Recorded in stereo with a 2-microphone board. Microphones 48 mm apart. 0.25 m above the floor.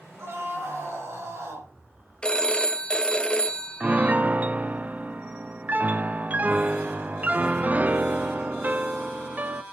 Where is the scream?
60° right (ahead or behind), 4 m; by 1.7 s 70° right (ahead or behind), 4 m.